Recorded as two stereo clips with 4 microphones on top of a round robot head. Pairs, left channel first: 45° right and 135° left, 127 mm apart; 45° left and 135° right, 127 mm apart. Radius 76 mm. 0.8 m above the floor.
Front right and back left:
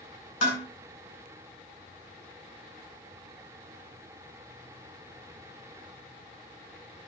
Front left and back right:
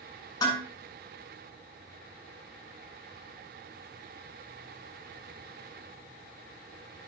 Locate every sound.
0.4 s dishes clattering: 20° right, 7 m